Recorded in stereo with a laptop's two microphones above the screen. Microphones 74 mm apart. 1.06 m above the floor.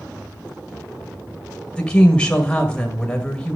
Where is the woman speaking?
10° left (ahead or behind), 1.0 m.